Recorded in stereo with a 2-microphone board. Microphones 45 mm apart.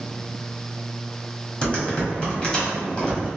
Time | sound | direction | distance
1.6 | typing on a keyboard | 25° left (ahead or behind) | 1.1 m